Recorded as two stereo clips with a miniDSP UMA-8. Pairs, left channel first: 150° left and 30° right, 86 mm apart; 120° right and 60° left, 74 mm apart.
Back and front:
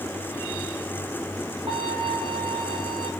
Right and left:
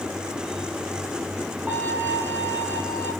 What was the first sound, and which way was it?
A violin, 5° right.